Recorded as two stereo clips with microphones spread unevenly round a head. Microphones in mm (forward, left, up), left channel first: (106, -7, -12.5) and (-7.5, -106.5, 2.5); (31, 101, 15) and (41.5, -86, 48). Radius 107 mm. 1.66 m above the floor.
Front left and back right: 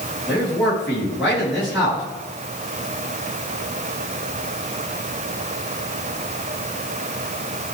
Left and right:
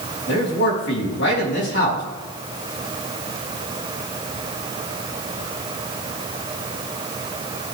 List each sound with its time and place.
0.3 s a man speaking: 130° left, 4 m